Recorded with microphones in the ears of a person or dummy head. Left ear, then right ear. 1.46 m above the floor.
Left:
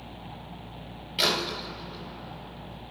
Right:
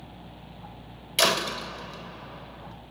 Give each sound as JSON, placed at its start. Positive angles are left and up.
{"t": 1.2, "sound": "a door slam", "side_deg": -40, "distance_m": 0.9}